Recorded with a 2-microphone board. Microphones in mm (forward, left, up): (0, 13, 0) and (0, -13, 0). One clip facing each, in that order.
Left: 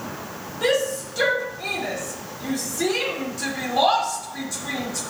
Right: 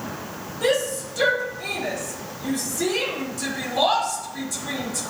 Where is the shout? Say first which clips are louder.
Left 1 dB; 15° left (ahead or behind), 3.5 m.